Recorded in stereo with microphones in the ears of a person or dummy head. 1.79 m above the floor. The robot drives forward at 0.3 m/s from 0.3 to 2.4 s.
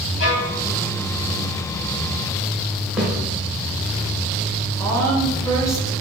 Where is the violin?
60° left (ahead or behind), 1.7 m.